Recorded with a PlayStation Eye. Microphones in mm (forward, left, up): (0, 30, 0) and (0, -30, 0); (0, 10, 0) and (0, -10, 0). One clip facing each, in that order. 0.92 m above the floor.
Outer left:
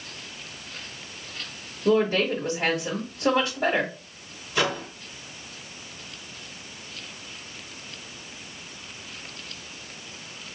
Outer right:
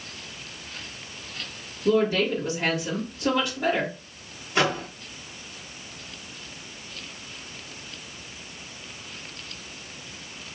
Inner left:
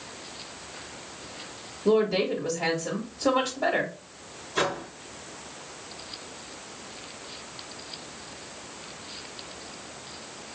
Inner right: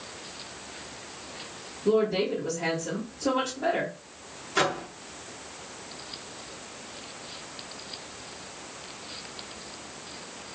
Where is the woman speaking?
30° left (ahead or behind), 1.3 m.